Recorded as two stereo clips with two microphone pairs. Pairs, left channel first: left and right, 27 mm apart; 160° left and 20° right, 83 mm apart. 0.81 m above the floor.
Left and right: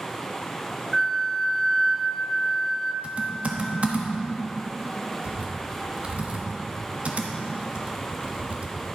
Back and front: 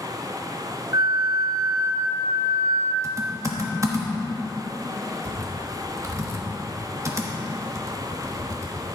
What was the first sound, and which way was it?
A flute, 5° left.